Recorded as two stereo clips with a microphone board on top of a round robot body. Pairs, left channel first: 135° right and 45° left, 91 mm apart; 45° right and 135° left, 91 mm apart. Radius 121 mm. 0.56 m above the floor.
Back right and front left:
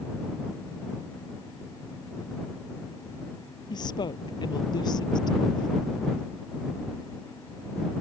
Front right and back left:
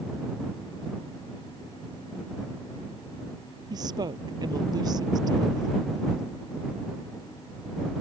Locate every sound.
3.7 s a woman speaking: straight behind